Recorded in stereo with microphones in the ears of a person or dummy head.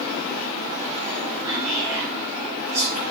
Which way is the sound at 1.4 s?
70° right (ahead or behind).